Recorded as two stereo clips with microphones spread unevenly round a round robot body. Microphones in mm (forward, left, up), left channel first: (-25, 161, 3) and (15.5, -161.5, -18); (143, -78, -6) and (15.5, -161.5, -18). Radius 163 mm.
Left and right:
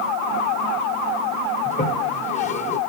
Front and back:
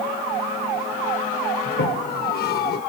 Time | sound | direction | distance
1.6 | a toilet flushing | 25° left | 0.9 m